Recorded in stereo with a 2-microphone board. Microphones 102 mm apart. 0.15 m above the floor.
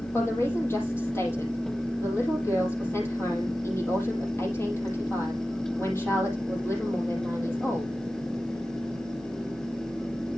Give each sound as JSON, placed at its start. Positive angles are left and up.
{"t": 0.1, "sound": "a woman speaking", "side_deg": 25, "distance_m": 5.5}